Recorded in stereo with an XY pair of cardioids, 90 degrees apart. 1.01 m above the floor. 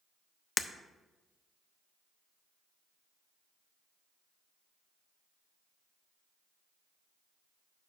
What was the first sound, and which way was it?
Breaking glass, 25° left.